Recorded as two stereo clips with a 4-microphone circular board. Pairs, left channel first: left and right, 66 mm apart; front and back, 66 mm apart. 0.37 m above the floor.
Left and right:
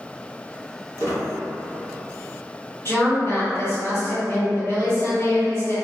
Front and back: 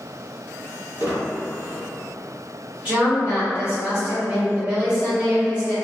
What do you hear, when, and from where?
1.0 s a squeak: 125° left, 1.2 m
2.9 s a woman speaking: 120° left, 1.8 m